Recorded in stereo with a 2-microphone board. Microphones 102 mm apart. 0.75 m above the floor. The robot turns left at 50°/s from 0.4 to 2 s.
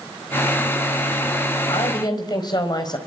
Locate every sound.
1.7 s a woman speaking: 60° left (ahead or behind), 4 m; by 3.0 s 45° left (ahead or behind), 4 m